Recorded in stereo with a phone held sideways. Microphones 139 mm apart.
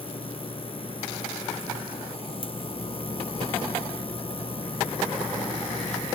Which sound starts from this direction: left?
A machine running, at 0.0 s.